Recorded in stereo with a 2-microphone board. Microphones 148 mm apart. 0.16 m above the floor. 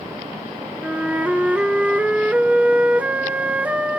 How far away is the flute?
About 1.1 m.